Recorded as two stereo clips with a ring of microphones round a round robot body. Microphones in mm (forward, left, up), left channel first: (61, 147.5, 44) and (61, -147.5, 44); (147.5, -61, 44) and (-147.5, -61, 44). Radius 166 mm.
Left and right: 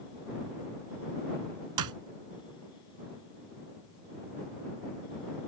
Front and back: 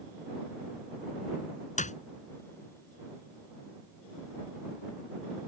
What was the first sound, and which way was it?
A clap, 65° right.